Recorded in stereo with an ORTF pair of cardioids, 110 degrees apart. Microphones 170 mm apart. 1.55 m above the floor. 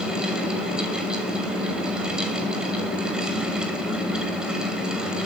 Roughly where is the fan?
Ahead.